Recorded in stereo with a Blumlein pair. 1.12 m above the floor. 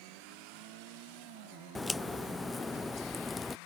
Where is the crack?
10° left.